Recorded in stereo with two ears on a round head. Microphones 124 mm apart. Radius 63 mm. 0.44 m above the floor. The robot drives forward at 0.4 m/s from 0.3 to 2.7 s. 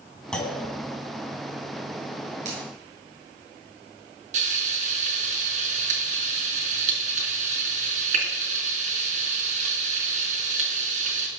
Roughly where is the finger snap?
Right.